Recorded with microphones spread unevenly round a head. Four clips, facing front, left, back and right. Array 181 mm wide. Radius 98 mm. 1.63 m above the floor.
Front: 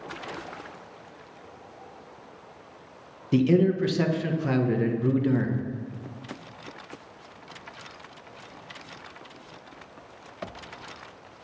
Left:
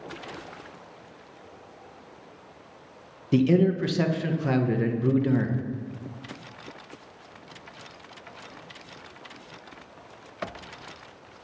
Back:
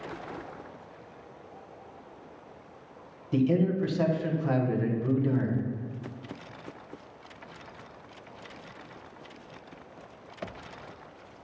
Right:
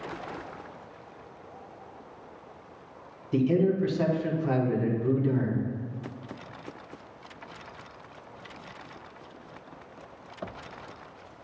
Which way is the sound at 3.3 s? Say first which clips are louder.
Left 3 dB, front 4 dB; 50° left.